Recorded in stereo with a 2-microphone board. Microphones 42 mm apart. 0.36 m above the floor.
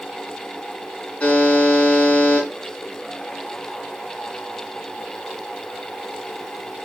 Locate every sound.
1.2 s a buzzer: 30° left (ahead or behind), 5 m